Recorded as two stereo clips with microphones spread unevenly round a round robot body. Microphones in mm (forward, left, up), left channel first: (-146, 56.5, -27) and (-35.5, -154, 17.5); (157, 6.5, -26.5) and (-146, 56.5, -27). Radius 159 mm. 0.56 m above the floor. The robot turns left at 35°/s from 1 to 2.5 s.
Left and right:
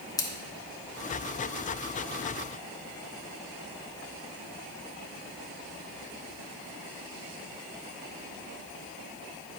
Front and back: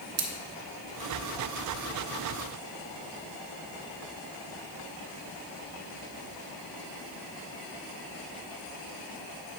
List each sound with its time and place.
0.2 s scissors: 160° left, 1.1 m